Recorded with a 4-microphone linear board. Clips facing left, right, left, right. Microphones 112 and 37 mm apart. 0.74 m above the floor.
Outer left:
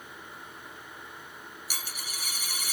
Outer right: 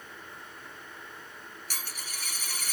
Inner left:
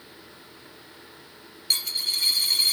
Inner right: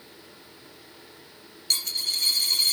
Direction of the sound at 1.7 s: 10° left (ahead or behind).